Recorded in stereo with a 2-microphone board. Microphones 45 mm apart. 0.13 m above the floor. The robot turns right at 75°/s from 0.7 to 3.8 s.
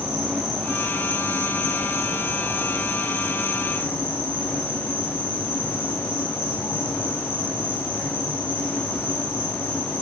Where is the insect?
160° right, 1.3 m; by 10.0 s 75° left, 1.3 m.